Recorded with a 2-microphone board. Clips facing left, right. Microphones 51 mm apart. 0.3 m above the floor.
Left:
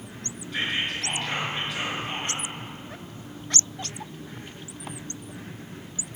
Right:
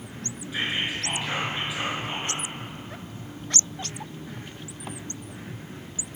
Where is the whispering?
10° right (ahead or behind), 4.5 m.